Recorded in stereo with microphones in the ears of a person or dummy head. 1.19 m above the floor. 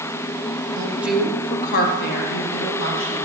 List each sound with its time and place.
0.8 s a woman speaking: 20° right (ahead or behind), 0.8 m; by 3.2 s 80° left, 1.8 m